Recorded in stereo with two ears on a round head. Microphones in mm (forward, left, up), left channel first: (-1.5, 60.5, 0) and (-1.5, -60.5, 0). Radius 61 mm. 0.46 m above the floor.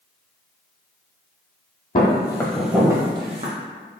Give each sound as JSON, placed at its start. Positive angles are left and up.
{"t": 1.9, "sound": "footsteps", "side_deg": 40, "distance_m": 0.9}